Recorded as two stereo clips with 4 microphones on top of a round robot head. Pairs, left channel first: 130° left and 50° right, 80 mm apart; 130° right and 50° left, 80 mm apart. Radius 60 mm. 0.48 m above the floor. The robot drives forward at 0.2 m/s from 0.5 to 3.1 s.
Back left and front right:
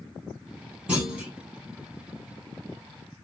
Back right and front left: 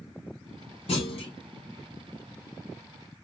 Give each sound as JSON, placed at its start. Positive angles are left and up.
{"t": 0.9, "sound": "a clunk", "azimuth_deg": -125, "distance_m": 3.5}